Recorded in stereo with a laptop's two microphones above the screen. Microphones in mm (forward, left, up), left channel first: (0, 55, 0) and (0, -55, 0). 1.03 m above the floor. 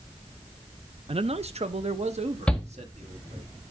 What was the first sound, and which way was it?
A man speaking, 60° right (ahead or behind).